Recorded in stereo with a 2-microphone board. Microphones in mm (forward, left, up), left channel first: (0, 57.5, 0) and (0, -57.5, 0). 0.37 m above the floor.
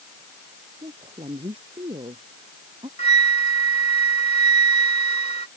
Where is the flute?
85° left.